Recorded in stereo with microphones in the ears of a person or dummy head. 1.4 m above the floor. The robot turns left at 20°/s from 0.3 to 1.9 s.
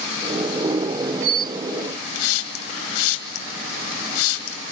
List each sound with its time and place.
2.1 s a hiss: 80° left, 2 m